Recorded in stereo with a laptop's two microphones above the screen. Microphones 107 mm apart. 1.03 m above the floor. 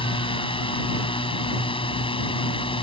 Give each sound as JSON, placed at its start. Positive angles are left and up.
{"t": 0.0, "sound": "a drone", "side_deg": 60}